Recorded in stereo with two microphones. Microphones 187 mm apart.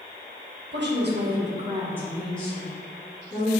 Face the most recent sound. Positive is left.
turn(degrees=25)  # may be behind; listen again after turning